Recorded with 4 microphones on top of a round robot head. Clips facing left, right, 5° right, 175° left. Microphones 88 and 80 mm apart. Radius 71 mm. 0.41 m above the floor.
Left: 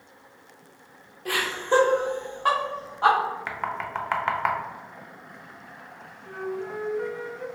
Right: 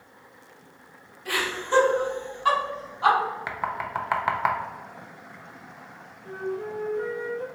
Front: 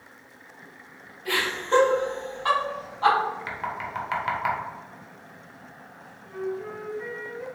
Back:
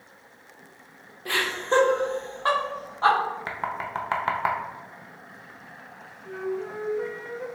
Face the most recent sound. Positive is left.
turn(degrees=-150)